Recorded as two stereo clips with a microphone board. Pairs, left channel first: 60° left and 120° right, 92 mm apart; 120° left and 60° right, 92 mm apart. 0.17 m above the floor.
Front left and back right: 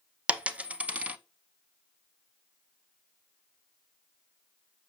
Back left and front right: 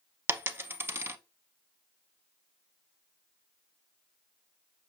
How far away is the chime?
No chime in this recording.